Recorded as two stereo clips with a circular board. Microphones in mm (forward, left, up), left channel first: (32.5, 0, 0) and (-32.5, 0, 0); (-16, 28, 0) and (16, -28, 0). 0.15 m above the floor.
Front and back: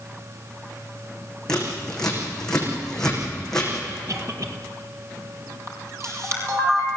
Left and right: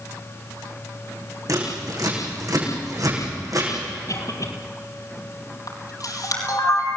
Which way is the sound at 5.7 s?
135° left.